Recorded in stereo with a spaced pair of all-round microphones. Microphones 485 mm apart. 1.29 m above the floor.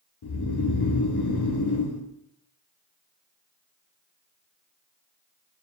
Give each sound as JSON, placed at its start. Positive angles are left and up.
{"t": 0.2, "sound": "snoring", "side_deg": 55, "distance_m": 0.5}